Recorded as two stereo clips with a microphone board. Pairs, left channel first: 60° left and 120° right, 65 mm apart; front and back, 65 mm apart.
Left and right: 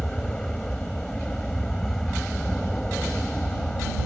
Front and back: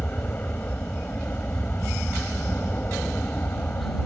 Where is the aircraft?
10° right.